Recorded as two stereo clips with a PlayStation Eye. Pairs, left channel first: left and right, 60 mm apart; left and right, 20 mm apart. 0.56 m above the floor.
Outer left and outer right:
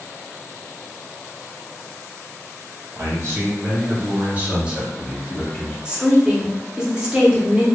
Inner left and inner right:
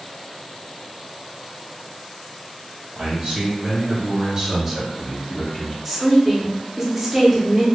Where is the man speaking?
45° right (ahead or behind), 1.6 m; by 5.8 s 30° left (ahead or behind), 0.9 m.